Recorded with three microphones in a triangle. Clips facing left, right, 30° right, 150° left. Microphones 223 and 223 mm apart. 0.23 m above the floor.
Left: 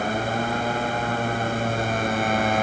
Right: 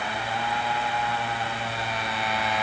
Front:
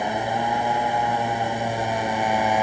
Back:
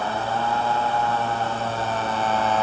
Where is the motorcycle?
45° left.